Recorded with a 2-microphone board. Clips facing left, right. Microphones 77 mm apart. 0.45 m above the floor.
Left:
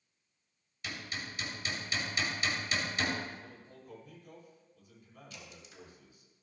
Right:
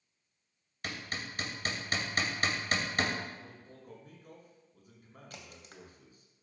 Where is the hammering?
50° right (ahead or behind), 2.5 m.